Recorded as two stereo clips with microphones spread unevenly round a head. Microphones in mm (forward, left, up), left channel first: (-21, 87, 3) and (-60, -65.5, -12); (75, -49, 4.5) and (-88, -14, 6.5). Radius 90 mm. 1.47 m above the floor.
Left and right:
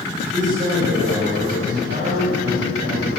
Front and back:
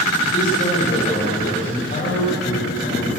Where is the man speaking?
55° right, 8.5 m.